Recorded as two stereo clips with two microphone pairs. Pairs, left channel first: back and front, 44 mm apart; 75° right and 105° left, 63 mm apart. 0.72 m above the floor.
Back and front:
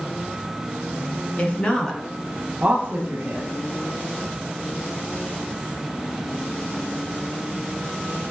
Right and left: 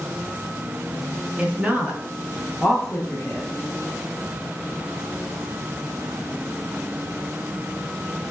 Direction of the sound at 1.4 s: 155° left.